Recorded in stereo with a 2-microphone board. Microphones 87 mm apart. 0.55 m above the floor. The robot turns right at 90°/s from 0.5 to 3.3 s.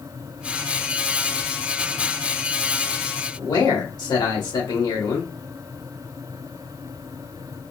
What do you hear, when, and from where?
3.4 s a man speaking: 55° left (ahead or behind), 1.7 m